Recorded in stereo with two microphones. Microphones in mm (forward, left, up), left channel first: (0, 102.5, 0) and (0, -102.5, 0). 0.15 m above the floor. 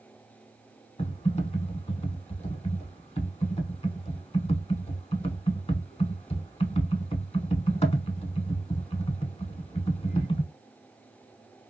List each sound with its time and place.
1.0 s typing on a keyboard: 30° left (ahead or behind), 0.7 m